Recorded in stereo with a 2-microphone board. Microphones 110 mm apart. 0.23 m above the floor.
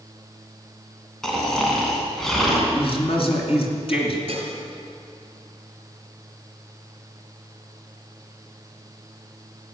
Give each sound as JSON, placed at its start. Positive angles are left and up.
{"t": 1.2, "sound": "snoring", "side_deg": 5, "distance_m": 2.5}
{"t": 2.7, "sound": "a man speaking", "side_deg": 55, "distance_m": 2.5}
{"t": 4.3, "sound": "dishes clattering", "side_deg": -55, "distance_m": 2.5}